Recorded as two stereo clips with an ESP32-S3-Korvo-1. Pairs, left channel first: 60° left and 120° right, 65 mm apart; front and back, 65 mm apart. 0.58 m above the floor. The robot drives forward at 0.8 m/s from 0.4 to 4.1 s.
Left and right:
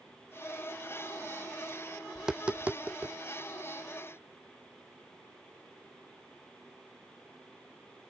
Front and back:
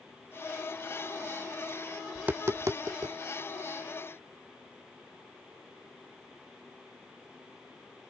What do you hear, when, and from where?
2.1 s tapping: 170° left; by 3.1 s straight behind